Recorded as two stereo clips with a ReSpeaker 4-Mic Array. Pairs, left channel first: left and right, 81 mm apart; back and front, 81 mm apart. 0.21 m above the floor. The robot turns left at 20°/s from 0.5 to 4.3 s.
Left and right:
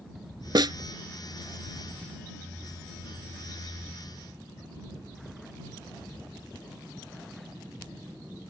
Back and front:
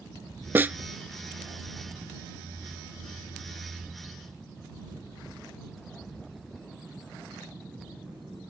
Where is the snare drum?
65° right; by 0.8 s 70° right.